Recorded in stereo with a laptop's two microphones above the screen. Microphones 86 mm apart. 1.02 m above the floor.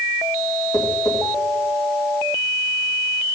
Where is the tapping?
50° left (ahead or behind), 3 m.